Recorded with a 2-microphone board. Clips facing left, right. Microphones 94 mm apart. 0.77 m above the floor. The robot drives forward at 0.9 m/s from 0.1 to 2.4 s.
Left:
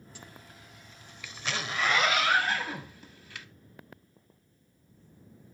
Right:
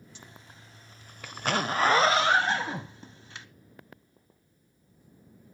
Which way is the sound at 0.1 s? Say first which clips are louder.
Left 3 dB; 20° right (ahead or behind).